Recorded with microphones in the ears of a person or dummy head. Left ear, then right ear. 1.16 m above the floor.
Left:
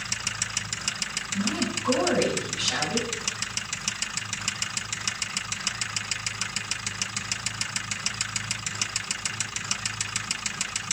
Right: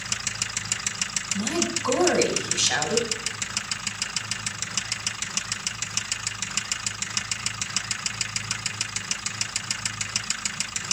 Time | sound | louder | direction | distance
1.3 | a woman speaking | right 1 dB | 75° right (ahead or behind) | 9.5 m